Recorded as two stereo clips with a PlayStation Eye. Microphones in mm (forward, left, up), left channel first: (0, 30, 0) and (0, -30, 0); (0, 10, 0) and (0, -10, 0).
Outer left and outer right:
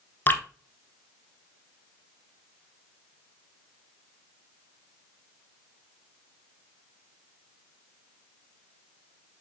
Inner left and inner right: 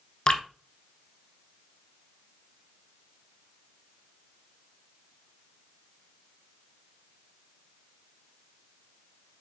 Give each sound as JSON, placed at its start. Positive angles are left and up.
{"t": 0.3, "sound": "dripping", "side_deg": 30, "distance_m": 1.0}